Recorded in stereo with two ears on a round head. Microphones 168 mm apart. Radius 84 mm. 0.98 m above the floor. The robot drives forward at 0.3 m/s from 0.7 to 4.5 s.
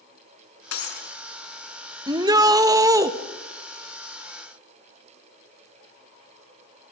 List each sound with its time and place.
0.7 s breaking glass: 80° left, 5.5 m; by 1.1 s 85° left, 5.5 m
2.1 s a shout: 20° right (ahead or behind), 1.3 m